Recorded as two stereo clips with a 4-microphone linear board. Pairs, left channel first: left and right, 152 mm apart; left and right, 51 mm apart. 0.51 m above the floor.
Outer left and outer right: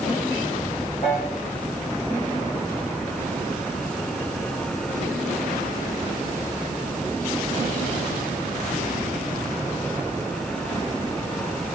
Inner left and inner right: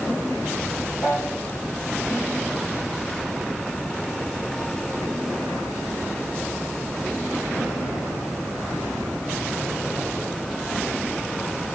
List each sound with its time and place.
1.0 s a piano: 40° left (ahead or behind), 9.5 m